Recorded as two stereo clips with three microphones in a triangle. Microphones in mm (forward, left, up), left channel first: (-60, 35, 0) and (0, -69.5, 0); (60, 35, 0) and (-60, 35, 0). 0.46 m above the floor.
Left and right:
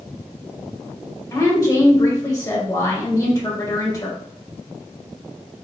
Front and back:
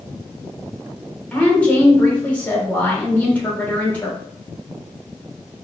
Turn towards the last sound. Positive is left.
turn(degrees=75)